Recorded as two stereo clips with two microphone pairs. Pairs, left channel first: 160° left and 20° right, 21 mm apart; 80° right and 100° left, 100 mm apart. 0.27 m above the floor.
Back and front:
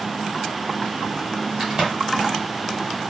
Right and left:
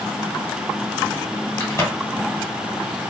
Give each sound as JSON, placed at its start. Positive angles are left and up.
{"t": 1.6, "sound": "a crack", "azimuth_deg": -45, "distance_m": 1.8}